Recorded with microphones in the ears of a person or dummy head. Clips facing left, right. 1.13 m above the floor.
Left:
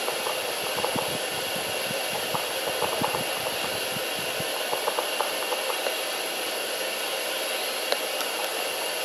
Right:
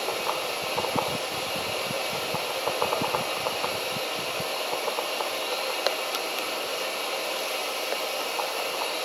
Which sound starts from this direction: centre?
Running water, at 0.0 s.